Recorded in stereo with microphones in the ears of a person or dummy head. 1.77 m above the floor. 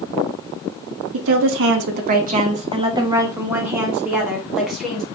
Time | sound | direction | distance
1.1 | a woman speaking | 70° right (ahead or behind) | 0.7 m